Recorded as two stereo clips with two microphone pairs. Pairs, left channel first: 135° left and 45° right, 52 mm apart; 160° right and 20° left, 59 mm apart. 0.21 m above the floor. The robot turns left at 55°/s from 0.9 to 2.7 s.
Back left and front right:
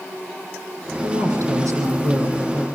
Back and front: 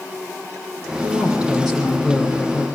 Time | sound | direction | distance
1.0 | a woman speaking | 30° right | 8.5 m